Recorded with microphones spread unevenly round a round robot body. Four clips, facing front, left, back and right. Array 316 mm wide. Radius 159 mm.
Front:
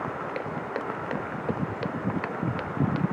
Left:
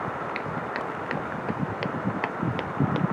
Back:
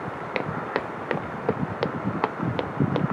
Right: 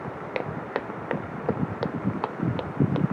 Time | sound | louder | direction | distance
0.3 | footsteps | even, back 3 dB | 155° right | ?